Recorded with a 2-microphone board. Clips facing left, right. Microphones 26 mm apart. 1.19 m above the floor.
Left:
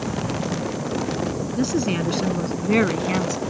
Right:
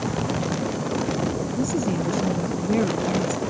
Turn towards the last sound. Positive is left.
turn(degrees=70)  # may be behind; listen again after turning